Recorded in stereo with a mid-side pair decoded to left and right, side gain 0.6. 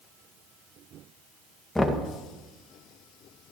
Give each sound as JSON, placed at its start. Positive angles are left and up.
{"t": 1.8, "sound": "knocking", "azimuth_deg": 10, "distance_m": 1.7}